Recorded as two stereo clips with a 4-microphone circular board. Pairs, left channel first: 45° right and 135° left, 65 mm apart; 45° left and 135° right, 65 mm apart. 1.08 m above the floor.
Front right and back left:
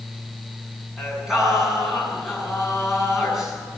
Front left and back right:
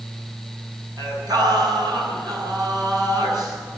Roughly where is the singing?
Behind right.